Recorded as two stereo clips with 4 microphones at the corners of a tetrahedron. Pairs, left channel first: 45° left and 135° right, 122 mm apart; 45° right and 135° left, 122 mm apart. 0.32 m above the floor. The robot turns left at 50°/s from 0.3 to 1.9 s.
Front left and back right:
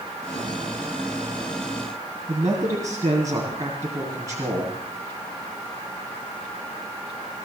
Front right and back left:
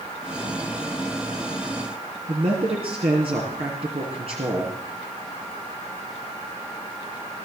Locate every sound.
2.3 s a man speaking: 165° left, 2.5 m